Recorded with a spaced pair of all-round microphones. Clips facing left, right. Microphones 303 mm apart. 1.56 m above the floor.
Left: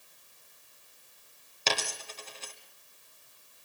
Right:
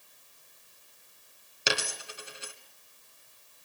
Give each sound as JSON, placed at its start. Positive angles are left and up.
{"t": 1.7, "sound": "a dropped coin", "side_deg": -10, "distance_m": 1.9}